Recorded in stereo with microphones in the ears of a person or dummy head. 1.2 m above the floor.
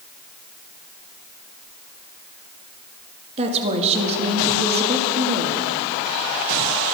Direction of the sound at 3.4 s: 30° right (ahead or behind).